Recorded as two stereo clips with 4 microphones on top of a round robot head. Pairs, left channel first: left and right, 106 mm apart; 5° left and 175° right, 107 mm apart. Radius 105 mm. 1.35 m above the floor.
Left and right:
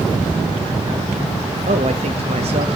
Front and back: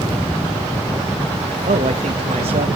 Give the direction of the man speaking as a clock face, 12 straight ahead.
4 o'clock.